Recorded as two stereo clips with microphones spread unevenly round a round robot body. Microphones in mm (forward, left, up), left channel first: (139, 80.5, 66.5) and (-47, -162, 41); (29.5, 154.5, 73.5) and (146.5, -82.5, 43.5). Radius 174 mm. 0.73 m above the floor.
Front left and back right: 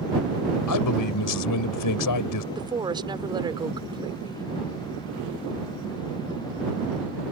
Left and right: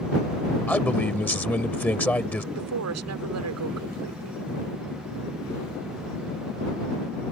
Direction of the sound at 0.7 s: 30° left.